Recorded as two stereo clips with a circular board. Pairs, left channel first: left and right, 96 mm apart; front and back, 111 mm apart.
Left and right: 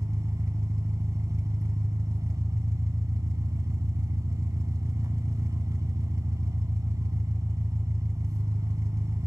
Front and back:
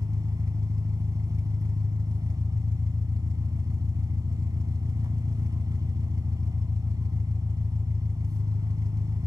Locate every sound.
0.0 s an engine running: 135° right, 1.1 m